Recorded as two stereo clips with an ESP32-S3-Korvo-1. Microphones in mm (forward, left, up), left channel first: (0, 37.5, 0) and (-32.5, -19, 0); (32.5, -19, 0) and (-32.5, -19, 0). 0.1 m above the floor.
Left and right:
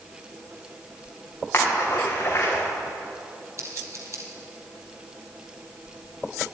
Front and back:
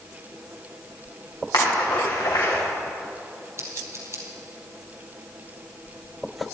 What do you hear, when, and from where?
1.5 s a splash: 10° left, 5 m
3.6 s scissors: 145° right, 2.5 m